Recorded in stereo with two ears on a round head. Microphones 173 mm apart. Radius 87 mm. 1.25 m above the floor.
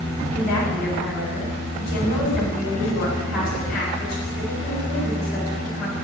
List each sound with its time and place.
0.3 s a woman speaking: 50° left (ahead or behind), 6 m